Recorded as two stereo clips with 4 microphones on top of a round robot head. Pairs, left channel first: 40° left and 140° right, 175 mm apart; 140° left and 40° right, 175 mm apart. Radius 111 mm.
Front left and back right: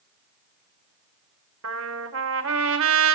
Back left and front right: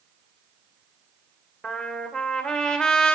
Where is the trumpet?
135° right, 2 m.